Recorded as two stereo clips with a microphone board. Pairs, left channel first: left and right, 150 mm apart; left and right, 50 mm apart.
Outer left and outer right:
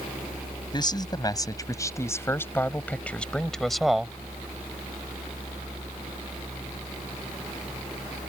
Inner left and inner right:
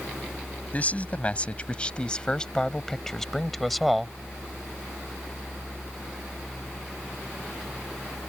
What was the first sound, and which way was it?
A man speaking, 30° left (ahead or behind).